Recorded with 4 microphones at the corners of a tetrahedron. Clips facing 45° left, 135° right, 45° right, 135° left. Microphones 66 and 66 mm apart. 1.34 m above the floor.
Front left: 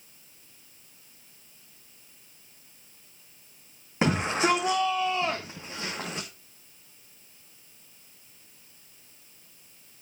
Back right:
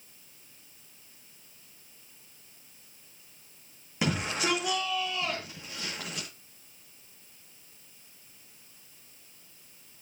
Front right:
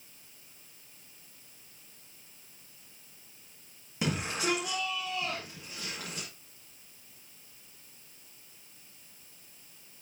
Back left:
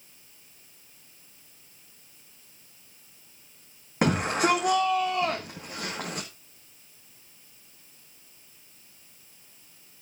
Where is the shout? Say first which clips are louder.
Front left 5 dB, back left 8 dB; 100° left, 1.5 m.